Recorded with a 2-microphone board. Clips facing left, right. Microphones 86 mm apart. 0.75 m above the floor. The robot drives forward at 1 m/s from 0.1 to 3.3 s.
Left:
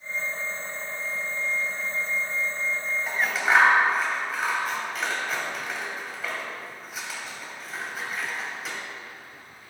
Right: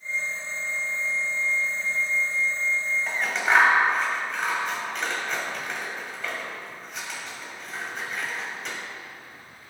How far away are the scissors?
About 2 m.